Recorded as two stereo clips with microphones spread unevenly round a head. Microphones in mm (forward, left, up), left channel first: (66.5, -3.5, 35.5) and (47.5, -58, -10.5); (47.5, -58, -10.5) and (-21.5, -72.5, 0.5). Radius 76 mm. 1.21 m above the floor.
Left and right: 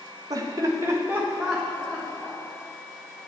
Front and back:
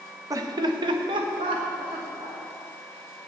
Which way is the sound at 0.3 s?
130° right.